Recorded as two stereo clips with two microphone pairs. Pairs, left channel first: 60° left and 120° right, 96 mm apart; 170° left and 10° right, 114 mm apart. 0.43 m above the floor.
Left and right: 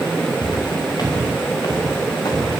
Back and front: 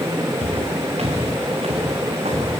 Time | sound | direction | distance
0.4 | footsteps | 15° left | 6 m